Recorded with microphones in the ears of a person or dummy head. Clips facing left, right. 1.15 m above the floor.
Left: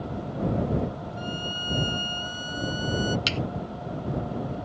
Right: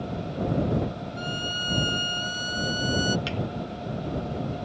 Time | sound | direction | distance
1.2 | a violin | 30° right (ahead or behind) | ?
3.3 | a thud | 55° left (ahead or behind) | ?